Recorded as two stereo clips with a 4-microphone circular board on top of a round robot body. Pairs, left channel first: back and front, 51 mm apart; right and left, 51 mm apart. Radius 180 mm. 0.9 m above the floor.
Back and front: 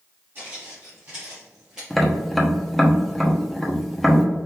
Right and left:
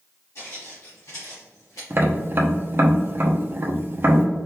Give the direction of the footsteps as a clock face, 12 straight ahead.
2 o'clock.